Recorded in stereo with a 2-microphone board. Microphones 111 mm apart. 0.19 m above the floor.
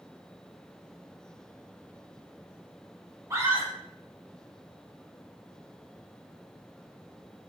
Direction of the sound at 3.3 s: 25° right (ahead or behind).